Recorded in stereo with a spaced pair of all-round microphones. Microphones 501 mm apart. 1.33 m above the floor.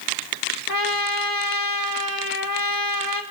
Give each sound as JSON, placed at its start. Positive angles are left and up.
{"t": 0.7, "sound": "a trumpet", "side_deg": -40, "distance_m": 2.0}